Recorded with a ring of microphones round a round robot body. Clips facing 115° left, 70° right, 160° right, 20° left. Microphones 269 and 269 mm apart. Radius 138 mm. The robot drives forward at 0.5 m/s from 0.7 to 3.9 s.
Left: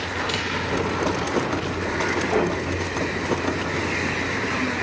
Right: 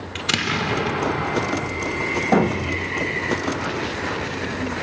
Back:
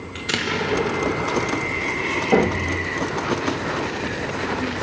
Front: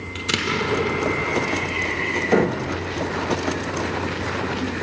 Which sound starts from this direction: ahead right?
An explosion, at 0.1 s.